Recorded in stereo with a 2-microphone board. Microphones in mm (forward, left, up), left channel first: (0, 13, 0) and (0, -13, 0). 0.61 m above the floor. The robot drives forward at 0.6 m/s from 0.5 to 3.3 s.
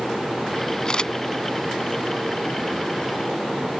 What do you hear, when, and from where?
0.8 s a camera shutter: 40° left (ahead or behind)